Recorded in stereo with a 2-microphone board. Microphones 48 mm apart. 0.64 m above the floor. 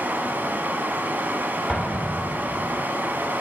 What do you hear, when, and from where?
0.0 s running water: 40° right (ahead or behind), 0.7 m
1.7 s an explosion: 10° left (ahead or behind), 2 m